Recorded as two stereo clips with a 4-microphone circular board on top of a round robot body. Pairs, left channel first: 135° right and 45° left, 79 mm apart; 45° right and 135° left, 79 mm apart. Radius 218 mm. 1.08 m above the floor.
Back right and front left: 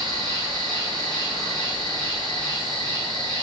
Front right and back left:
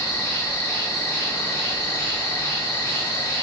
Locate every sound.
0.0 s an insect: 25° left, 1.1 m